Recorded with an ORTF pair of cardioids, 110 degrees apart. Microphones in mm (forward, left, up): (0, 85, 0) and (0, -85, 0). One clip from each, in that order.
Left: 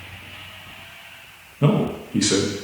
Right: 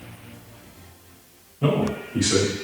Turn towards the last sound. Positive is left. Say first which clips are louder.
# left 1 dB
turn(degrees=40)